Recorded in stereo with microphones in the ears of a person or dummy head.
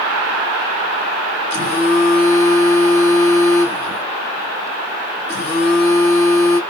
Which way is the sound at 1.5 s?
45° left (ahead or behind).